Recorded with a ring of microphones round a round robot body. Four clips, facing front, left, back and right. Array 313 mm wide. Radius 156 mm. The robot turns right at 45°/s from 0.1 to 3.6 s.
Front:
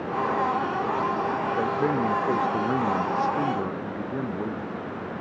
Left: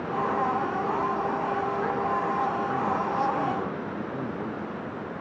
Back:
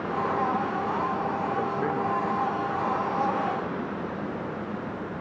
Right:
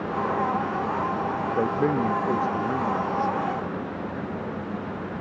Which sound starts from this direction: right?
A man speaking, at 1.6 s.